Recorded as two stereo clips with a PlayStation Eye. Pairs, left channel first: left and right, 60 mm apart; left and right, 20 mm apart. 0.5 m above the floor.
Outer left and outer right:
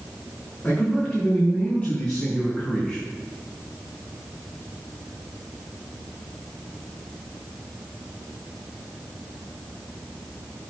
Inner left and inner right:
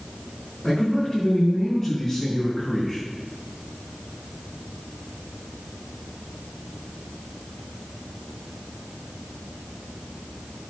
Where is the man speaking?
25° left (ahead or behind), 6 m; by 3.0 s 10° left (ahead or behind), 5.5 m.